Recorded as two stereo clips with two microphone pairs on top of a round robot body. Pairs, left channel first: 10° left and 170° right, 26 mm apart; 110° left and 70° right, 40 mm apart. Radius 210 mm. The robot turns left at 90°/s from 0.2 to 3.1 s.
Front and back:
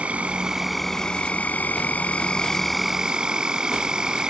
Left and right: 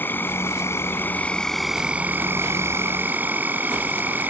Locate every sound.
0.0 s an insect: 155° left; by 4.3 s 105° right